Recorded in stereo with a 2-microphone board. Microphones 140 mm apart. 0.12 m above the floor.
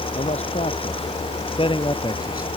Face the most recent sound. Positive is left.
turn(degrees=25)  # may be behind; listen again after turning